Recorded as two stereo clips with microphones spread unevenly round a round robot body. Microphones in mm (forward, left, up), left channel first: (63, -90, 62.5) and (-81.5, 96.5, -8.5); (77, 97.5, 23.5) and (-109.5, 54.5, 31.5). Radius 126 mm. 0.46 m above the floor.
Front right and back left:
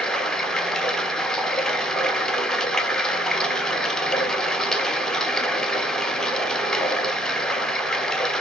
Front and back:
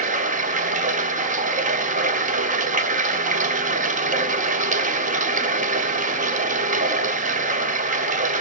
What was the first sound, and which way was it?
Running water, 165° right.